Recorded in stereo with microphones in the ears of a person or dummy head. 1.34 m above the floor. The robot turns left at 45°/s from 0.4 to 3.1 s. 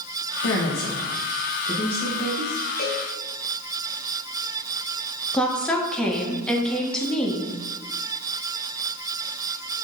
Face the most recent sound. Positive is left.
turn(degrees=5)  # may be behind; listen again after turning